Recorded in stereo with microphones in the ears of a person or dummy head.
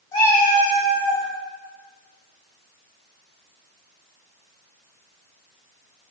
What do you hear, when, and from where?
0.1 s a cat meowing: 25° left (ahead or behind), 1.0 m; by 1.3 s 10° left (ahead or behind), 0.9 m